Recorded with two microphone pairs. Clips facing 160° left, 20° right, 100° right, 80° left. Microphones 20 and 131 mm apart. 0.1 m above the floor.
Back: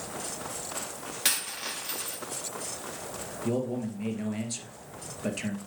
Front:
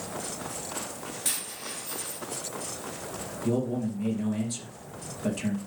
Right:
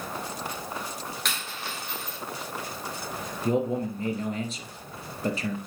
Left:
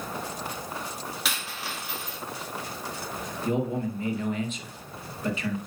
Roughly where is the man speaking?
Behind right.